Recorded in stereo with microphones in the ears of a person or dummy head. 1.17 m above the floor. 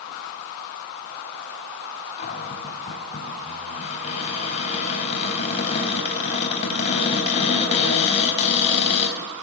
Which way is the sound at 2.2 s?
40° left (ahead or behind).